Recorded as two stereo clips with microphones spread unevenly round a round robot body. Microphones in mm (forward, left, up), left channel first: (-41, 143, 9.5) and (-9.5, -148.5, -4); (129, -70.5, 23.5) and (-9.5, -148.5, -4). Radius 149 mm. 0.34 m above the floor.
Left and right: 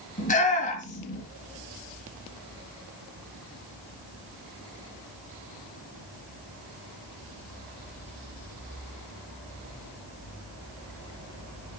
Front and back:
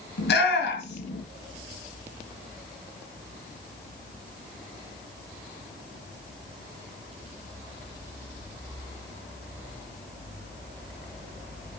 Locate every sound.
0.2 s a shout: 30° left, 4 m